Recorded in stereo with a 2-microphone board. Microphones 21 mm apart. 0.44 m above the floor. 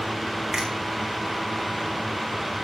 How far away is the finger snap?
About 4.5 m.